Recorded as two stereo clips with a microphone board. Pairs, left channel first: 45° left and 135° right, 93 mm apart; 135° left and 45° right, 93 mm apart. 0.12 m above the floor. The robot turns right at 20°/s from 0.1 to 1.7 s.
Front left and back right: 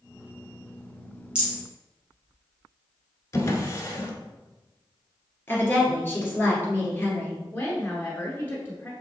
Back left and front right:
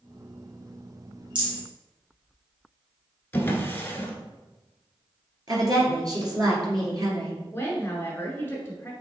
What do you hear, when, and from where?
1.4 s a rattle: 60° right, 2 m; by 1.6 s 55° right, 2 m
3.3 s a drawer: 80° left, 0.9 m
5.5 s a woman speaking: 15° right, 1.9 m
7.5 s a woman speaking: 95° left, 1.2 m